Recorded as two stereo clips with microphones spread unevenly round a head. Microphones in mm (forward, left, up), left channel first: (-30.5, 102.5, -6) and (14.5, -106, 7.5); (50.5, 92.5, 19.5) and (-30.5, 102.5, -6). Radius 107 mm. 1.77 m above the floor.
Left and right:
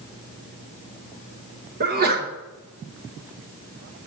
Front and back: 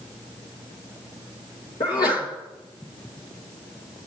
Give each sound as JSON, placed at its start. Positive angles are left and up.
{"t": 1.8, "sound": "a sneeze", "azimuth_deg": -35, "distance_m": 1.6}